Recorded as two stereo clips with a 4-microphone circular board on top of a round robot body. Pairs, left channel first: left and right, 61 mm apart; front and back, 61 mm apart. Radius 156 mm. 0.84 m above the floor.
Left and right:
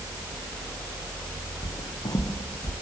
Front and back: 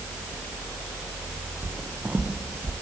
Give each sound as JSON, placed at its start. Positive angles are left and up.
{"t": 1.6, "sound": "footsteps", "azimuth_deg": 110, "distance_m": 3.5}